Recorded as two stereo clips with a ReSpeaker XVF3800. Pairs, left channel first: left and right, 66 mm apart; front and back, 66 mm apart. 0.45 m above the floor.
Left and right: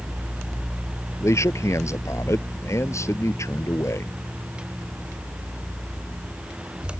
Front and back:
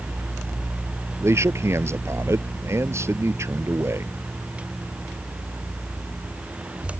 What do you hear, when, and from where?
1.2 s a man speaking: 135° left